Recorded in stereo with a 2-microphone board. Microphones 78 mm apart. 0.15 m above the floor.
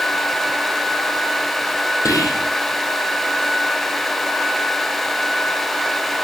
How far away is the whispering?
About 5 m.